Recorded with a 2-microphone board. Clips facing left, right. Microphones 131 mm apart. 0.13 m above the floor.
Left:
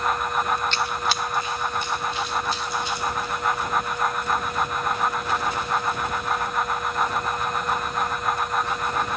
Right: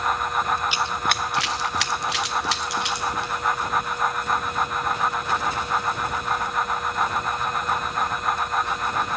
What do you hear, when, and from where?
0.7 s running footsteps: 10° right (ahead or behind), 0.6 m; by 3.3 s 70° right (ahead or behind), 3.5 m